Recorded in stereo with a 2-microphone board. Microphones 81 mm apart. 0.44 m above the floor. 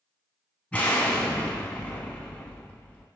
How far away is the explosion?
About 0.8 m.